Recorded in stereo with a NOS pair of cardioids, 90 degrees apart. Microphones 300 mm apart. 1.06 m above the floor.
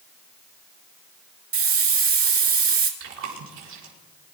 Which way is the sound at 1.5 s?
45° right.